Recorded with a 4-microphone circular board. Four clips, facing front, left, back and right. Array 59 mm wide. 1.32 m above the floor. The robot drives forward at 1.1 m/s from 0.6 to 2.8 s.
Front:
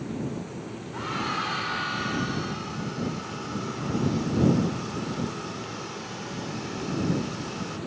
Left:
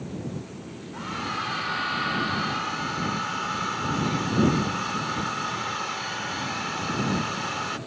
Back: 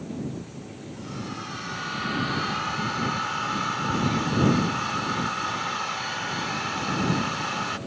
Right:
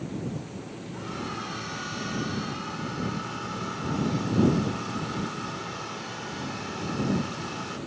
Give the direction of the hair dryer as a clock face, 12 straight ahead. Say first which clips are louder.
Left 5 dB, front 7 dB; 11 o'clock.